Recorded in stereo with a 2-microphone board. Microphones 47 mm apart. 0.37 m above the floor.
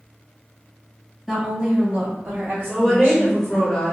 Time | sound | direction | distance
1.3 | a woman speaking | 5° right (ahead or behind) | 1.6 m
2.7 | a woman speaking | 15° left (ahead or behind) | 1.3 m